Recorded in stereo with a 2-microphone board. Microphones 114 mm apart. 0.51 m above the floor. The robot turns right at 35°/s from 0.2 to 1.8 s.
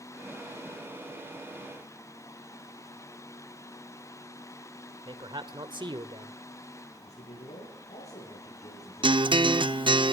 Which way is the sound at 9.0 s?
45° right (ahead or behind).